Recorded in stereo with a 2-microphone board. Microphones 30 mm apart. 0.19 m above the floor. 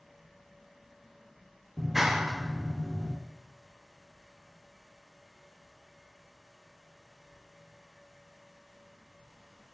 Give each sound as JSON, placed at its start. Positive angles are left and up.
{"t": 1.8, "sound": "a clap", "side_deg": -10, "distance_m": 2.5}